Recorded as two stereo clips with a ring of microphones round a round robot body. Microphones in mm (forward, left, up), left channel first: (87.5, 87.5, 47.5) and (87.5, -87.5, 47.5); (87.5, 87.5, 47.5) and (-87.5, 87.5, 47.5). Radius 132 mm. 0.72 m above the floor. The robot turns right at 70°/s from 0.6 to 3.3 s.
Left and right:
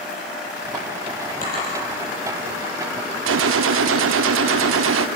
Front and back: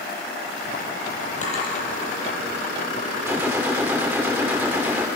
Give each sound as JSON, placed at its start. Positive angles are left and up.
{"t": 1.4, "sound": "a drawer", "azimuth_deg": 50, "distance_m": 8.0}
{"t": 3.3, "sound": "a gunshot", "azimuth_deg": -100, "distance_m": 0.5}